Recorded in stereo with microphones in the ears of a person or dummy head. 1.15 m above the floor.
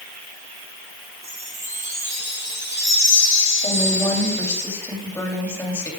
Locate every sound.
1.2 s a chime: 20° right (ahead or behind), 1.4 m
3.6 s a woman speaking: 15° left (ahead or behind), 3 m